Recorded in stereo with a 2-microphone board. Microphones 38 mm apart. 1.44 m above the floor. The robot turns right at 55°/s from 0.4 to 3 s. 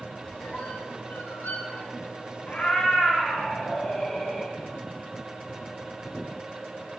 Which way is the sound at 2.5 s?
40° left (ahead or behind).